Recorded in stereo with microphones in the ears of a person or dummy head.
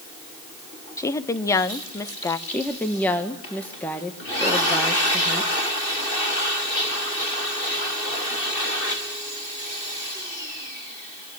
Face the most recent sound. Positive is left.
turn(degrees=5)  # may be behind; listen again after turning